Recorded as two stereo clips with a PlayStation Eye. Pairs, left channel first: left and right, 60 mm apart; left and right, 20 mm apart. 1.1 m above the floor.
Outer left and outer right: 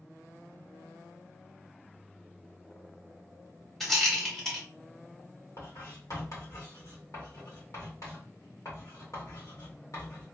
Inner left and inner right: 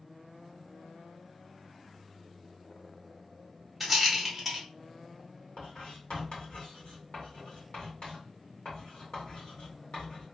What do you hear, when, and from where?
3.8 s a rattle: 5° left (ahead or behind), 1.3 m
5.6 s writing: 65° left (ahead or behind), 1.8 m